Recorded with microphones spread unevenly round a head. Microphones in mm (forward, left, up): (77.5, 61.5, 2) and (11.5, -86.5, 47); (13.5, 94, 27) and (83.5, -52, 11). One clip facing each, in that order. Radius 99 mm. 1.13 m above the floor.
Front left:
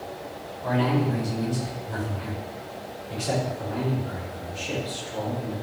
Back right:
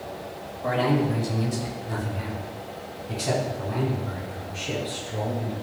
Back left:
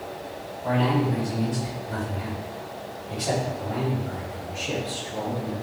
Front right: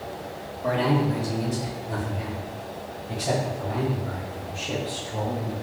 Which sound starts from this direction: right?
A man speaking, at 0.6 s.